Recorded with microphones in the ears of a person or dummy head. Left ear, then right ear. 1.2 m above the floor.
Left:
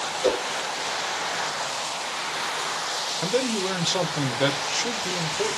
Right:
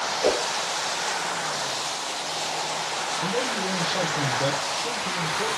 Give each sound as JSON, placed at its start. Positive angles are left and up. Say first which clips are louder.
{"t": 0.2, "sound": "a whoosh", "louder": "even", "side_deg": -25, "distance_m": 1.7}
{"t": 3.2, "sound": "a man speaking", "louder": "left 3 dB", "side_deg": 65, "distance_m": 0.5}